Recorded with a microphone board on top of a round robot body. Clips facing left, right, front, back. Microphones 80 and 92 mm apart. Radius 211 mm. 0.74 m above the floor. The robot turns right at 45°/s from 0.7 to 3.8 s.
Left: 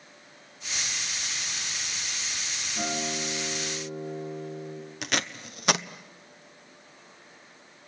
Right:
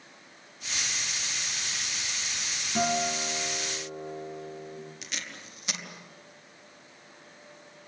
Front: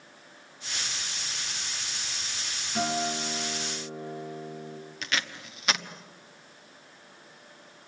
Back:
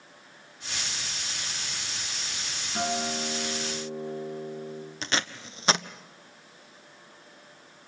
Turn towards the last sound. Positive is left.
turn(degrees=120)